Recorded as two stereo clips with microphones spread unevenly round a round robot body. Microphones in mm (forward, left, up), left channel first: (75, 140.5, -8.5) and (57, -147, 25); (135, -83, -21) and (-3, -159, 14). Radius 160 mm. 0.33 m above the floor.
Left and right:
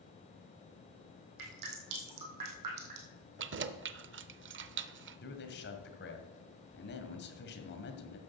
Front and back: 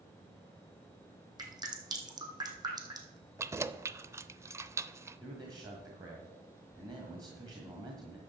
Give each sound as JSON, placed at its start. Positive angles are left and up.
{"t": 1.4, "sound": "dripping", "azimuth_deg": -85, "distance_m": 3.5}
{"t": 3.4, "sound": "keys jangling", "azimuth_deg": -70, "distance_m": 0.6}
{"t": 5.2, "sound": "a man speaking", "azimuth_deg": 130, "distance_m": 1.6}